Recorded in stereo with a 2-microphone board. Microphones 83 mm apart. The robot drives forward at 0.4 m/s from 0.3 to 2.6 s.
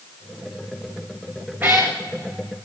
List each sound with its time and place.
1.6 s a cat meowing: 25° right (ahead or behind), 1.9 m; by 2.0 s 30° right (ahead or behind), 1.8 m